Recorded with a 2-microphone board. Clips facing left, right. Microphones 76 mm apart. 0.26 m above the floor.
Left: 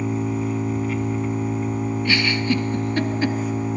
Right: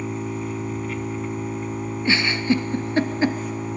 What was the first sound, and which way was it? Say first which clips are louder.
An engine running: left 4 dB; centre (ahead or behind).